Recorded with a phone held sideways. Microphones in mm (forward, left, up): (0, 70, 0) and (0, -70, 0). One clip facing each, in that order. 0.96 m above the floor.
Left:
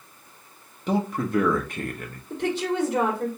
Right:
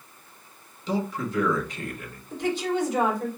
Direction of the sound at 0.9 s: 55° left (ahead or behind).